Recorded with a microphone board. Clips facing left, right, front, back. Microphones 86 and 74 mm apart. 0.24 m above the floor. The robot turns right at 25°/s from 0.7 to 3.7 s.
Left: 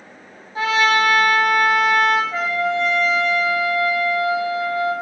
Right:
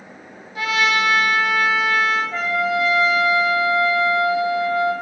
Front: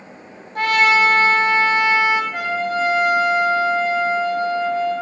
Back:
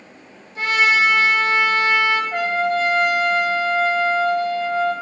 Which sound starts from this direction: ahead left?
A trumpet, at 0.6 s.